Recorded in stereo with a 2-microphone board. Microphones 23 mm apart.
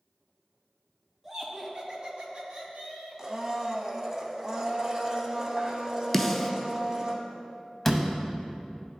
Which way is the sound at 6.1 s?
10° left (ahead or behind).